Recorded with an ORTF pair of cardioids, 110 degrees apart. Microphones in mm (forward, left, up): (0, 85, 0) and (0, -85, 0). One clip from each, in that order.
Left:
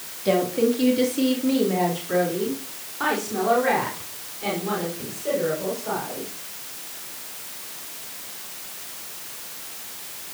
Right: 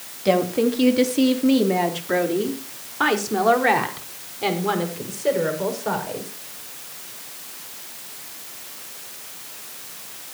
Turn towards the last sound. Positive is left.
turn(degrees=-60)